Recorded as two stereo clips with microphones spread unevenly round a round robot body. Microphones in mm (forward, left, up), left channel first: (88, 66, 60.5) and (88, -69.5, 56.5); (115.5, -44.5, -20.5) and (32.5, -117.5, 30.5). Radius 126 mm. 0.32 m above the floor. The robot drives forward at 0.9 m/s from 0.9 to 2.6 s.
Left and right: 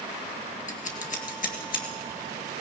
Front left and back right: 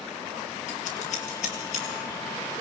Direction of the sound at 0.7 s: 65° left.